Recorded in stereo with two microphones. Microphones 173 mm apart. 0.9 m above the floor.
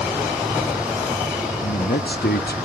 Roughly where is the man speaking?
Left.